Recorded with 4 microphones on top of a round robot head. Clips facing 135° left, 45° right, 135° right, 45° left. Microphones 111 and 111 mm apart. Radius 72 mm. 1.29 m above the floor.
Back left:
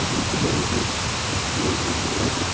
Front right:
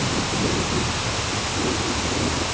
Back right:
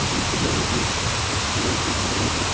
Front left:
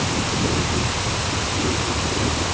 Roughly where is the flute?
No flute in this recording.